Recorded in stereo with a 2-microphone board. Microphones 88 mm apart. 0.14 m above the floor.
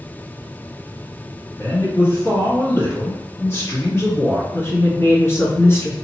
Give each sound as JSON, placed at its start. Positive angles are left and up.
{"t": 1.6, "sound": "a man speaking", "side_deg": 30, "distance_m": 1.4}
{"t": 4.5, "sound": "a woman speaking", "side_deg": 30, "distance_m": 1.2}